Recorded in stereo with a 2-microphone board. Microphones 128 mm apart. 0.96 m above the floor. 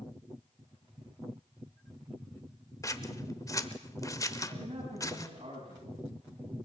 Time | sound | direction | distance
2.8 | scissors | 25° left (ahead or behind) | 1.0 m
4.5 | a man speaking | 50° right (ahead or behind) | 8 m